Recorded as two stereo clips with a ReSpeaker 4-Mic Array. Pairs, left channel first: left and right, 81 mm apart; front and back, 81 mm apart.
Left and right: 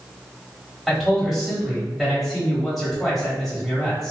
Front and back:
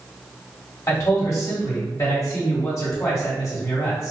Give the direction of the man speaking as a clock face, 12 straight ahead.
12 o'clock.